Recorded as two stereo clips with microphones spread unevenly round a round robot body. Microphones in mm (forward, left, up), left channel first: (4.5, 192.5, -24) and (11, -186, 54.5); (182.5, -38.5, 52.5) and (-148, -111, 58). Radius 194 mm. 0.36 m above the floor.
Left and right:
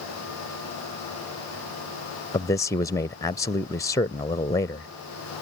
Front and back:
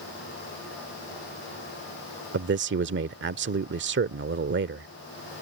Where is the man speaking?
155° left.